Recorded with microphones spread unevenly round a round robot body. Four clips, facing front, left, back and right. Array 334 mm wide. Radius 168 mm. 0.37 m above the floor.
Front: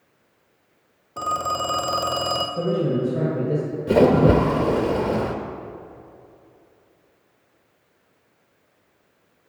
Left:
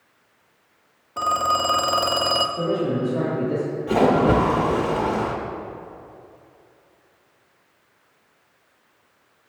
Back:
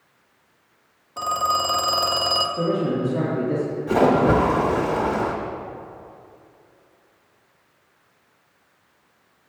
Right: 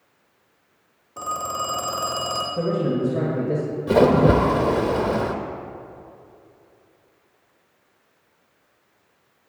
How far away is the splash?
About 0.7 m.